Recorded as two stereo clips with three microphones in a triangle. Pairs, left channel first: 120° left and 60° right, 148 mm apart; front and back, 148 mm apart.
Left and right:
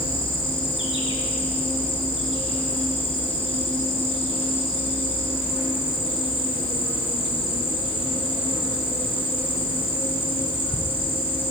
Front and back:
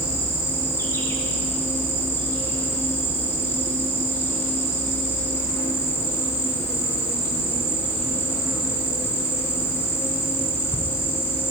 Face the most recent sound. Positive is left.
turn(degrees=75)